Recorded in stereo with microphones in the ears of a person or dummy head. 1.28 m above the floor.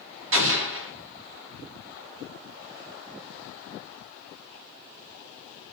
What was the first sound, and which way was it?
An explosion, 60° right (ahead or behind).